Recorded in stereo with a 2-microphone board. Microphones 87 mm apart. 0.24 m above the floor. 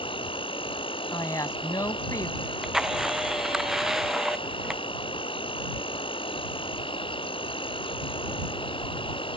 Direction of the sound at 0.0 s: 85° left.